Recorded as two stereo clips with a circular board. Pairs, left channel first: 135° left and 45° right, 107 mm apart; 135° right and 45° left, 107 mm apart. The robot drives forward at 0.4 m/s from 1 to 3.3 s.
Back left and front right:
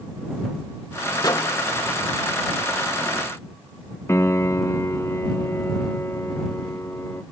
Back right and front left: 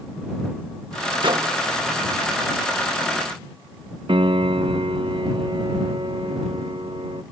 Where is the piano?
70° left.